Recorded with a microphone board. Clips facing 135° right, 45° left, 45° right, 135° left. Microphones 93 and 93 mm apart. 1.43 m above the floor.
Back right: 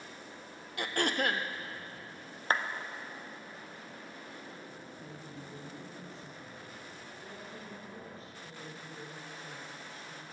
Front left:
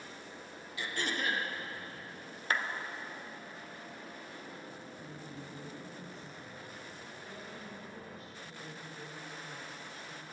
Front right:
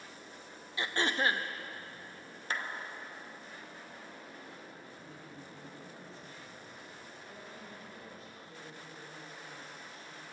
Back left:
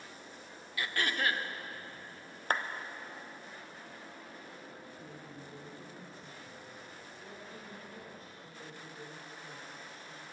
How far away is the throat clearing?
About 0.7 m.